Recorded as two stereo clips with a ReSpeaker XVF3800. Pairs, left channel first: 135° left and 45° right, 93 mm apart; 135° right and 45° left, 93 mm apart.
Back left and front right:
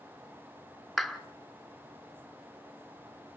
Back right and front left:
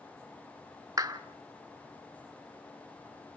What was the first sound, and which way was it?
A clap, 45° left.